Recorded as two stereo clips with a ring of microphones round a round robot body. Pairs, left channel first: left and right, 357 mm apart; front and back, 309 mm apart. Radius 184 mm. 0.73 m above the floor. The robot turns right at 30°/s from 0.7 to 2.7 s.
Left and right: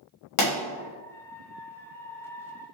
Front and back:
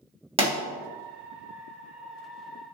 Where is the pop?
110° left, 1.5 m.